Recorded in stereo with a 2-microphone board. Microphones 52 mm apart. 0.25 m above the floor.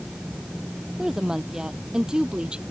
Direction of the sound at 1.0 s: 10° right (ahead or behind).